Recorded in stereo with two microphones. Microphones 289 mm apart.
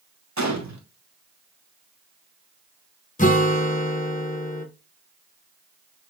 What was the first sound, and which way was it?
A gunshot, 70° right (ahead or behind).